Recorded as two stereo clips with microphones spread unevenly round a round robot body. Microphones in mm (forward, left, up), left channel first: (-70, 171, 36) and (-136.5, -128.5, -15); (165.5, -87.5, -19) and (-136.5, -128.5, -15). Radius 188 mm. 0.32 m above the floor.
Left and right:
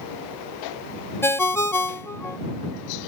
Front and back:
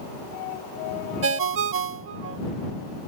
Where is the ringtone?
170° left.